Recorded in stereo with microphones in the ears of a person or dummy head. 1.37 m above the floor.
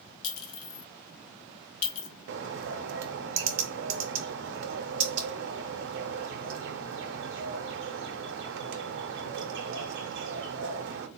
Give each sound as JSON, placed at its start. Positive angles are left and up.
{"t": 0.2, "sound": "a clink", "side_deg": 80, "distance_m": 1.0}
{"t": 2.3, "sound": "a bird", "side_deg": -60, "distance_m": 0.5}